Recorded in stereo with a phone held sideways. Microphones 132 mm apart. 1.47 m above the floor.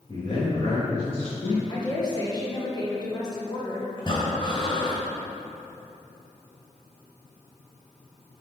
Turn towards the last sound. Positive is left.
turn(degrees=40)  # may be behind; listen again after turning